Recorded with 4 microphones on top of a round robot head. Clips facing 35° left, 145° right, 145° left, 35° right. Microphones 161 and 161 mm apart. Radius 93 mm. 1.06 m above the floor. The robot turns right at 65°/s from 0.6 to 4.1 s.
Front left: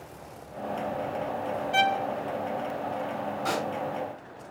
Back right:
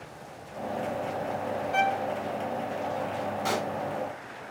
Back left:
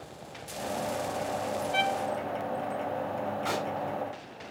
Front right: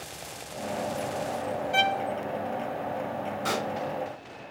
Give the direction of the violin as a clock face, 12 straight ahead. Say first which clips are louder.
Front left 1 dB, front right 4 dB; 1 o'clock.